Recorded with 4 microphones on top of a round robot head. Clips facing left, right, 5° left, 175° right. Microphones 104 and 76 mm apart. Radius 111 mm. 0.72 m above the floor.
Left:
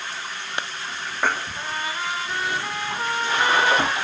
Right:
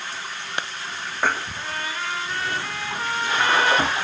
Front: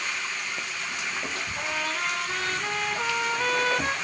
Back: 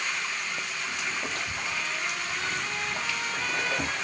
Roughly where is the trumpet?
Ahead.